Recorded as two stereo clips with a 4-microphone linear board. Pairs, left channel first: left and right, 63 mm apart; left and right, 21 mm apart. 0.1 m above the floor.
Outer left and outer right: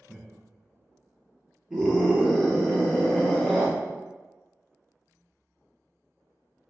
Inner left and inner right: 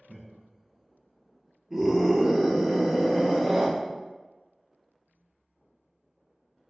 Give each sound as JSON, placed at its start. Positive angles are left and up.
{"t": 0.1, "sound": "laughter", "side_deg": 5, "distance_m": 1.4}
{"t": 1.7, "sound": "a scream", "side_deg": -20, "distance_m": 1.9}